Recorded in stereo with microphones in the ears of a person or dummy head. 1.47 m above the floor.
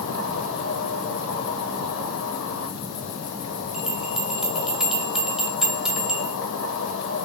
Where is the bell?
Centre (ahead or behind), 0.7 m.